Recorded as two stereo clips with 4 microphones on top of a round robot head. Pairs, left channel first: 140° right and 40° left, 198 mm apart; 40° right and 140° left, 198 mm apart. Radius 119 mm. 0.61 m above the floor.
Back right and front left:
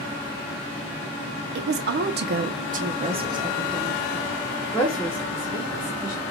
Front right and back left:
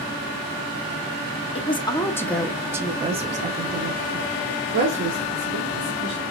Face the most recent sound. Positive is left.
turn(degrees=145)